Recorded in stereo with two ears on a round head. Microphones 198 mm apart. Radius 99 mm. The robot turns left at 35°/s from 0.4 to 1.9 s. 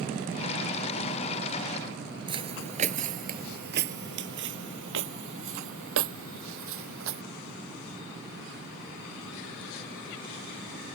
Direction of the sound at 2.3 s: 25° right (ahead or behind).